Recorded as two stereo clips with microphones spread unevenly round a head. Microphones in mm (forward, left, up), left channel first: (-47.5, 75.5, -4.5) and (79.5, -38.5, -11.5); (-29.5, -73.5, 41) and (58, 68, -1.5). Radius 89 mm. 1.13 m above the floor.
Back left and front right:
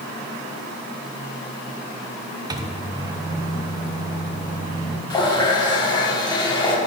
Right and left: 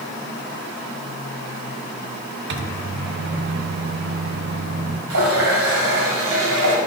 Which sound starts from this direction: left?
A running tap, at 5.1 s.